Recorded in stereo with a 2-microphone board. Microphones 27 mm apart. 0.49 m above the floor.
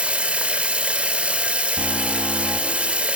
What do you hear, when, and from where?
0.0 s running water: 55° right (ahead or behind), 1.0 m
1.8 s an alarm: 65° left (ahead or behind), 4.5 m